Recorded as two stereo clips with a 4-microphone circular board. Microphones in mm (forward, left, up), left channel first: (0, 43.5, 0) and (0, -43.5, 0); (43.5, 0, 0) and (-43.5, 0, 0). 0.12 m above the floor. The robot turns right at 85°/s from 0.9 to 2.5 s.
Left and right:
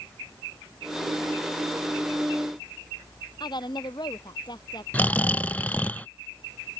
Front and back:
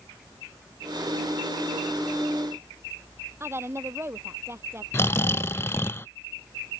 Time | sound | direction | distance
3.4 | a woman speaking | 120° left | ?
4.9 | snoring | 35° left | ?